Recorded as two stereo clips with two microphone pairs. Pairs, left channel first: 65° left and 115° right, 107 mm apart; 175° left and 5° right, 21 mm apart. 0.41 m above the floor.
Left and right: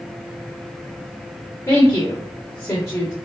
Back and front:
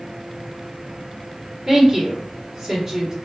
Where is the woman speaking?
60° left, 1.5 m.